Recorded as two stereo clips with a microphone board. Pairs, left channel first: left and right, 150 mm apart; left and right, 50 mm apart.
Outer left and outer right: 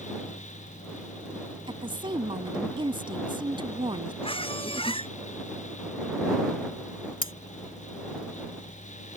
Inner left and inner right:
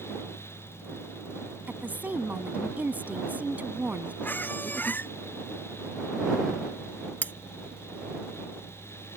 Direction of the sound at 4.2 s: 35° left (ahead or behind).